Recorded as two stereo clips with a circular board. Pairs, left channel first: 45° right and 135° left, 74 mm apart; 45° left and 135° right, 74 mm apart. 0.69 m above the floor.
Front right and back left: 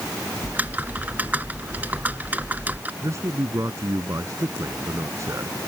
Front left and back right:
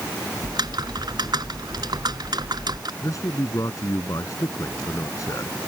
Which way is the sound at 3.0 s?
90° left.